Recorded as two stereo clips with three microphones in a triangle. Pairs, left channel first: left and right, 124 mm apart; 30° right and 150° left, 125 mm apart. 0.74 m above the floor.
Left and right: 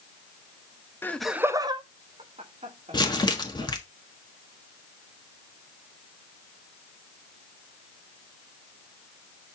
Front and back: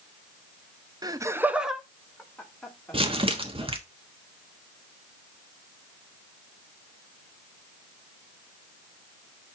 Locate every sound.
1.0 s laughter: 145° left, 0.6 m; by 3.7 s 105° right, 2.5 m
2.9 s crumpling: 130° left, 1.2 m